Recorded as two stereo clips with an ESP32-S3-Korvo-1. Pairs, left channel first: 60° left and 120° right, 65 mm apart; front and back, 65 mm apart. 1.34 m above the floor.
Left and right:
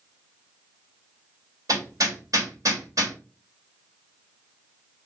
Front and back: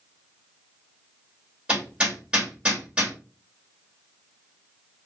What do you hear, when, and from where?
1.7 s hammering: 105° right, 1.8 m